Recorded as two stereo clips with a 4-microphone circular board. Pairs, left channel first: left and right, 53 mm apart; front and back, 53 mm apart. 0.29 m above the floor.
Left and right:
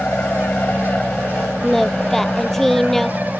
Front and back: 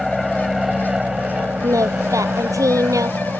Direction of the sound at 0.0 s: 90° left.